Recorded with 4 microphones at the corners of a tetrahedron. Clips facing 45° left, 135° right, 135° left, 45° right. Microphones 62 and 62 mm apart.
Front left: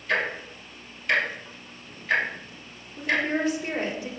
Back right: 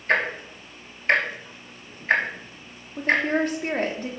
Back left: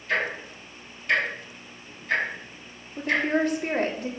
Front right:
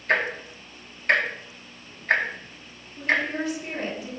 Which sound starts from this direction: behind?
A woman speaking, at 3.0 s.